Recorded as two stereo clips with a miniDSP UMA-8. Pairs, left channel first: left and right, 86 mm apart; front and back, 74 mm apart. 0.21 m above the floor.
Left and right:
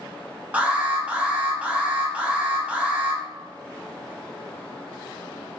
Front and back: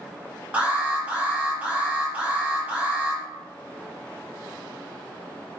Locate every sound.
0.5 s an alarm: 140° right, 0.7 m